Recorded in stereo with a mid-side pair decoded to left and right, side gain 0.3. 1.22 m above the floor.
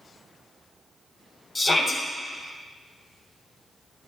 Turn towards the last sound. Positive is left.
turn(degrees=35)